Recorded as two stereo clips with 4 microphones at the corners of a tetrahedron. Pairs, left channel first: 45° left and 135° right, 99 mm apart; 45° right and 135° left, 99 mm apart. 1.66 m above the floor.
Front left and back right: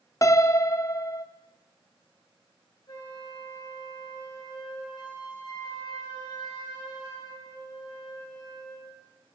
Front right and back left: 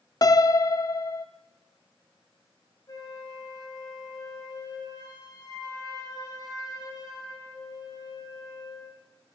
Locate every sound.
0.2 s a piano: 5° right, 0.5 m
2.9 s a flute: 5° left, 3 m